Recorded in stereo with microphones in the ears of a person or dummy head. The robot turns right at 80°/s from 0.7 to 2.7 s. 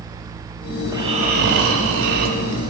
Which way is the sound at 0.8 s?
175° right.